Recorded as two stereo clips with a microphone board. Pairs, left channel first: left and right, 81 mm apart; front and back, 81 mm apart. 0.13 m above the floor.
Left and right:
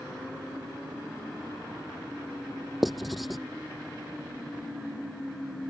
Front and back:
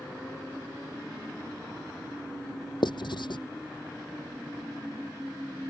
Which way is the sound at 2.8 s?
Straight ahead.